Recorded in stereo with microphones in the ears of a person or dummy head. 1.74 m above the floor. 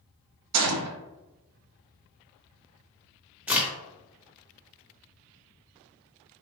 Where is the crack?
10° right (ahead or behind), 0.8 m.